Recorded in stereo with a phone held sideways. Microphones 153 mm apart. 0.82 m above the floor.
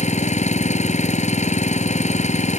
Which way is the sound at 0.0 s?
50° left (ahead or behind).